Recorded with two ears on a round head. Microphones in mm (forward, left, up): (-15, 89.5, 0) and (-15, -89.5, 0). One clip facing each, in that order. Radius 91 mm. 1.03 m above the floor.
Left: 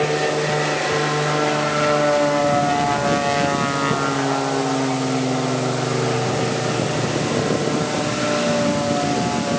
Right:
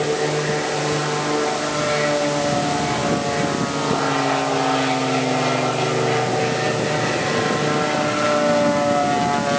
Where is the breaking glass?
No breaking glass in this recording.